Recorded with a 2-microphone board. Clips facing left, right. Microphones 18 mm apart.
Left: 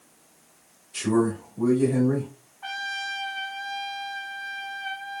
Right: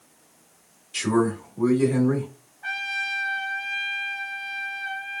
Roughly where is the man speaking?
Centre.